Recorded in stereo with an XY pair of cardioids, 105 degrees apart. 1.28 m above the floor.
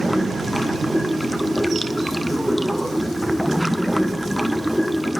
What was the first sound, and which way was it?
Running water, straight ahead.